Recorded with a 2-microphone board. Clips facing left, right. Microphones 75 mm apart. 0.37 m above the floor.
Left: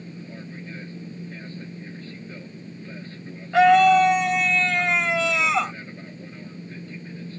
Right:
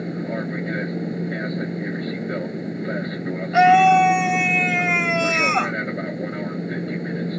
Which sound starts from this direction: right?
An aircraft, at 0.0 s.